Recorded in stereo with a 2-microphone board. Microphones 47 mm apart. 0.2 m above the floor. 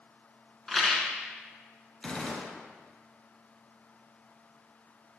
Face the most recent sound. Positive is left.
turn(degrees=20)  # may be behind; listen again after turning